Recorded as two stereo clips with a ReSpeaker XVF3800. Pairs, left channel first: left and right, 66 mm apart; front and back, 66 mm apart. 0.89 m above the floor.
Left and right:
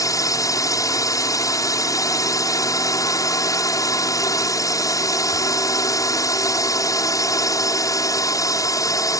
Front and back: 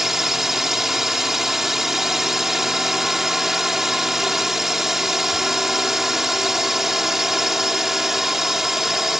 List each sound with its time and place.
0.0 s a drone: 95° left